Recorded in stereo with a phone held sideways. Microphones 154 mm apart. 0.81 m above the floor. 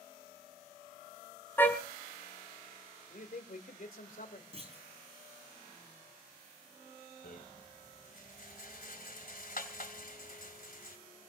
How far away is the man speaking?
About 2.5 m.